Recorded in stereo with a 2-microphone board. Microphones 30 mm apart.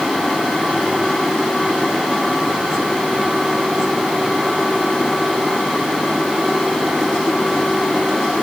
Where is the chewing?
No chewing in this recording.